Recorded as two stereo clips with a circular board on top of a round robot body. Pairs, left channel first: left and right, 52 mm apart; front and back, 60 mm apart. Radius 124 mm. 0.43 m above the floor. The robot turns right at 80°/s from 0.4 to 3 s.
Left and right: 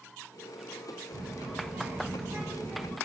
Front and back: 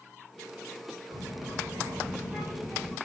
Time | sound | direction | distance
1.1 | a child speaking | 165° left | 2 m